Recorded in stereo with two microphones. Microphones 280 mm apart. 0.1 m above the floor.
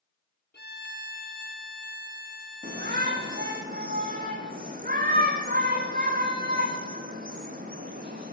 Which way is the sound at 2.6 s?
30° right (ahead or behind).